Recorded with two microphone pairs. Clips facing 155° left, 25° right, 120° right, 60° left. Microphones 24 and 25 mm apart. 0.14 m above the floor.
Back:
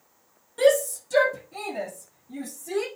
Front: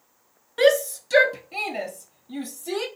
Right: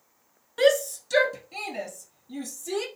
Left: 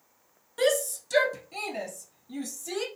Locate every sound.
0.6 s a shout: 55° right, 1.6 m; by 2.9 s 30° right, 4 m